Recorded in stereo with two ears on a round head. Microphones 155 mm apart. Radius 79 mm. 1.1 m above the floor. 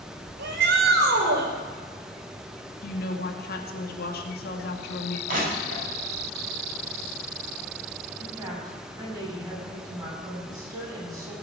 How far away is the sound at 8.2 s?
About 9.5 m.